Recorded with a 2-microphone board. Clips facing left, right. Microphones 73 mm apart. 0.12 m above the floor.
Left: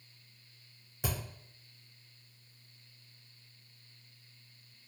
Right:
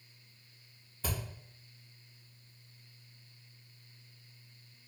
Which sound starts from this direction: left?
A thud, at 1.0 s.